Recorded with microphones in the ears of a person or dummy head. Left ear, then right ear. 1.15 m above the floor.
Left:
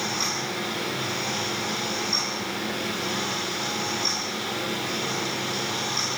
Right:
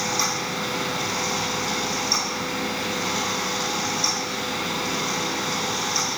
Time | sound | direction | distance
0.0 | a fan | 80° right | 7.5 m